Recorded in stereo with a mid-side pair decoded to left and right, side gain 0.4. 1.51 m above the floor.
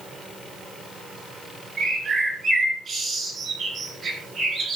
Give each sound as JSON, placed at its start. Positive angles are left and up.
{"t": 1.8, "sound": "a bird", "azimuth_deg": -50, "distance_m": 6.0}